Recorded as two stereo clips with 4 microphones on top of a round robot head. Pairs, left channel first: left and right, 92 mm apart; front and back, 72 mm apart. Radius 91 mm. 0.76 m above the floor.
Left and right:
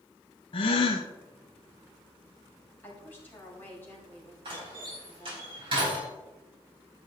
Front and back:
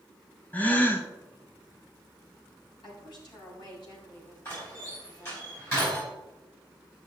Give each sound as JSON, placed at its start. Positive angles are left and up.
{"t": 0.5, "sound": "a gasp", "azimuth_deg": 70, "distance_m": 0.8}
{"t": 2.8, "sound": "a woman speaking", "azimuth_deg": 20, "distance_m": 4.5}
{"t": 4.5, "sound": "a door slam", "azimuth_deg": -60, "distance_m": 5.0}